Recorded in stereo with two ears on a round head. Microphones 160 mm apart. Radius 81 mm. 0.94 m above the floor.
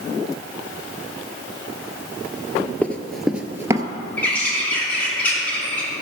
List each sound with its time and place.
2.8 s running footsteps: 10° left (ahead or behind), 1.0 m; by 3.9 s 20° right (ahead or behind), 1.0 m
4.2 s a bird: 10° left (ahead or behind), 2.5 m